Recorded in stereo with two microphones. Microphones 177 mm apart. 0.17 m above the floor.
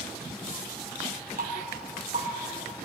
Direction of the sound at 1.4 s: 60° right (ahead or behind).